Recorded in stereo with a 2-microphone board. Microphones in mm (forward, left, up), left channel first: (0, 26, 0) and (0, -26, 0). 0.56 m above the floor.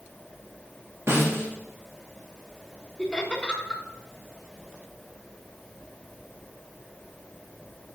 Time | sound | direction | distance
1.1 | a snare drum | 60° right (ahead or behind) | 2.5 m
3.0 | laughter | 15° left (ahead or behind) | 1.4 m